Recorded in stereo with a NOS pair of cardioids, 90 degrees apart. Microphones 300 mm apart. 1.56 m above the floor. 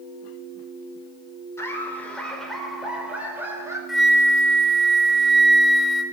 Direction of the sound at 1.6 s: 10° left.